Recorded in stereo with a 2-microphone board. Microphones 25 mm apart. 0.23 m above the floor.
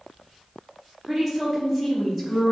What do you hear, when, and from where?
1.1 s a woman speaking: 15° right (ahead or behind), 1.2 m